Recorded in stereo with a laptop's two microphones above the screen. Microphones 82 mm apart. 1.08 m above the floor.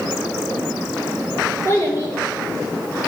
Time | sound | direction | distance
1.6 | a child speaking | 35° left (ahead or behind) | 3 m